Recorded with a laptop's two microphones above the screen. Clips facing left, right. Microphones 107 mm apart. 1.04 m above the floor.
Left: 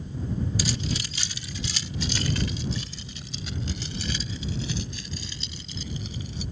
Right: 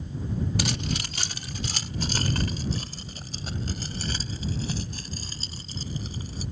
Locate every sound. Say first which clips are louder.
0.6 s keys jangling: even; 65° right (ahead or behind); by 6.4 s 40° right (ahead or behind)